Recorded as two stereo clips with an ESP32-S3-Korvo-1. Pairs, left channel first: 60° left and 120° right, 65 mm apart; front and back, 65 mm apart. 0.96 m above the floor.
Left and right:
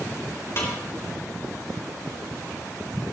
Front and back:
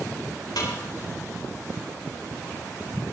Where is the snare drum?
10° left, 4 m.